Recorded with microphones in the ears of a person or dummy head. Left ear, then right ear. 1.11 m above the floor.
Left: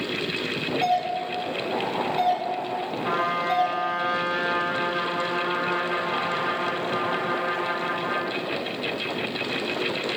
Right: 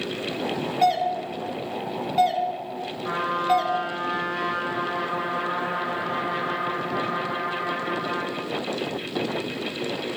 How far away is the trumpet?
About 2 m.